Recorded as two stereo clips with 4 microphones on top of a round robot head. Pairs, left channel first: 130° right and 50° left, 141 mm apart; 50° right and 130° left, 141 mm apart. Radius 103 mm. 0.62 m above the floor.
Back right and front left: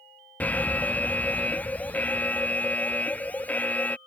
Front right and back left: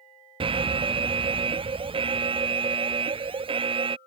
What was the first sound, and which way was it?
An alarm, 155° left.